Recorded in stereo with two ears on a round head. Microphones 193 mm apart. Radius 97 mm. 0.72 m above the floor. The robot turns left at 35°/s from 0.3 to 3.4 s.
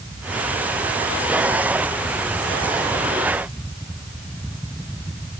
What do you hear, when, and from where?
Only background noise.